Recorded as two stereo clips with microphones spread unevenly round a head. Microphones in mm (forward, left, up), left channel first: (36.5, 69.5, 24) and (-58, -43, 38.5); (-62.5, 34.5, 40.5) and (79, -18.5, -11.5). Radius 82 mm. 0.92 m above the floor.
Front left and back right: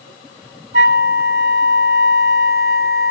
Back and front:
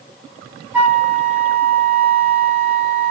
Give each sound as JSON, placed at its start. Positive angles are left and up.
{"t": 0.7, "sound": "a flute", "azimuth_deg": -120, "distance_m": 0.7}